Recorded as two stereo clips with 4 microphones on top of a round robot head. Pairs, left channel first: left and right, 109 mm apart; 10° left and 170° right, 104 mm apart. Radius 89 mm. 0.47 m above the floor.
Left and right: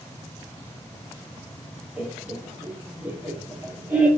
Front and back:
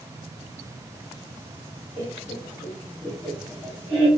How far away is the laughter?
About 1.5 m.